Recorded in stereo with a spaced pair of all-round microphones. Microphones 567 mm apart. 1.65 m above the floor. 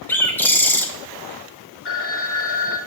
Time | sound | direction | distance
0.1 | a bird | 5° left (ahead or behind) | 0.8 m
1.9 | a phone ringing | 20° left (ahead or behind) | 1.1 m